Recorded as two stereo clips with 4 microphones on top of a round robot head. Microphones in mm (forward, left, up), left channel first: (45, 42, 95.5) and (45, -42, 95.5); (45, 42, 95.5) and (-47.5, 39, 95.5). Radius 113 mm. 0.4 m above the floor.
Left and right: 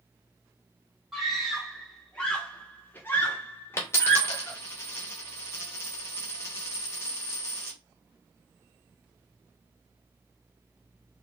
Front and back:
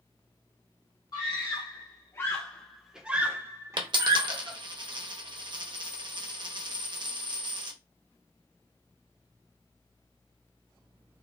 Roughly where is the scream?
Ahead.